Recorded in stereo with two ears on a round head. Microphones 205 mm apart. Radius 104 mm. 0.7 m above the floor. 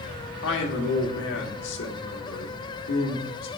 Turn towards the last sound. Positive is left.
turn(degrees=55)  # may be behind; listen again after turning